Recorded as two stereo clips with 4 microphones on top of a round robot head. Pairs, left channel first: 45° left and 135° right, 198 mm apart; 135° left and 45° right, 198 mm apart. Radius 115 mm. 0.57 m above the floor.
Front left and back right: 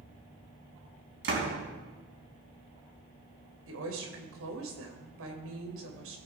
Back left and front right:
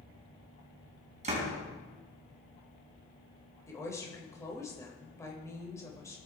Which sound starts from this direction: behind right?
A woman speaking, at 3.7 s.